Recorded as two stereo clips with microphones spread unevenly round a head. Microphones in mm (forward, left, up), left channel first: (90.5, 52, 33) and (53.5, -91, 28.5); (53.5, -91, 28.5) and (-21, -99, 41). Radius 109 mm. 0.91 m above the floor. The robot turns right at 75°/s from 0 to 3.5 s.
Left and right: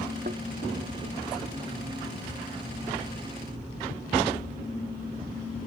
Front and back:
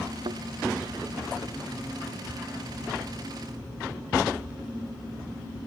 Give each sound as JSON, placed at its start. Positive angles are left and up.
{"t": 0.2, "sound": "a thud", "azimuth_deg": -160}